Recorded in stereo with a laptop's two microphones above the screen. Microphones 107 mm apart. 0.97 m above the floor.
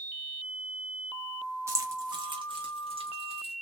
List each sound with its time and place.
1.7 s keys jangling: 25° right (ahead or behind), 0.6 m; by 3.5 s 65° right (ahead or behind), 1.4 m